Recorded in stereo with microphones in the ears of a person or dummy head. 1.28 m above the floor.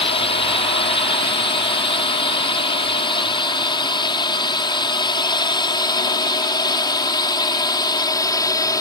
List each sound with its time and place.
0.0 s a drone: 35° left (ahead or behind); by 8.8 s 25° left (ahead or behind)